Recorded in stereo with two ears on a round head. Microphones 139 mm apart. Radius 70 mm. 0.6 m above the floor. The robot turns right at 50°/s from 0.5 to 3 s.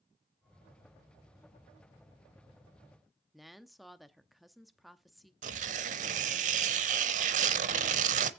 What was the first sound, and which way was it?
A woman speaking, centre (ahead or behind).